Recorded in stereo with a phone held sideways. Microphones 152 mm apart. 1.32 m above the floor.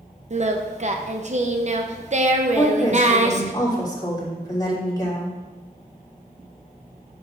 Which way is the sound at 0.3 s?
50° right (ahead or behind).